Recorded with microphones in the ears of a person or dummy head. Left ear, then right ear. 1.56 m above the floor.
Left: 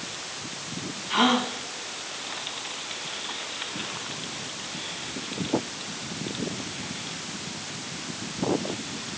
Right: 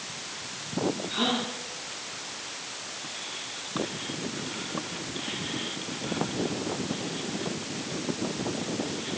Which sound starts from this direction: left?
A gasp, at 1.1 s.